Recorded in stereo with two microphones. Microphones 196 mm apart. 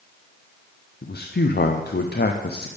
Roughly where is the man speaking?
Left.